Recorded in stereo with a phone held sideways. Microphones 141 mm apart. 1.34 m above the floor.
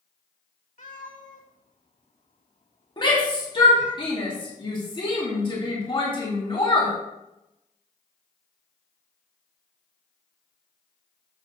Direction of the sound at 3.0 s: 35° left (ahead or behind).